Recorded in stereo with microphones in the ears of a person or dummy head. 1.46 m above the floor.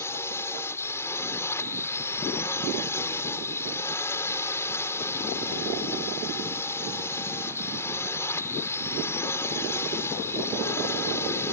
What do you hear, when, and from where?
0.0 s a drone: 15° left (ahead or behind)